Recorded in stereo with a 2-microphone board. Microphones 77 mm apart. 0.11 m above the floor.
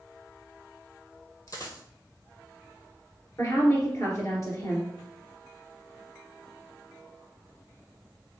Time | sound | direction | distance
1.5 | a dropped coin | 45° left (ahead or behind) | 1.0 m
3.4 | a woman speaking | 40° left (ahead or behind) | 1.9 m